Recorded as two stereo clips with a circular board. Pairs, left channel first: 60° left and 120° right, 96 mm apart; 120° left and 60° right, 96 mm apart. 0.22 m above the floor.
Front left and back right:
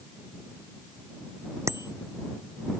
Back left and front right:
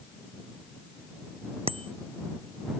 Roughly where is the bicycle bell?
Ahead right.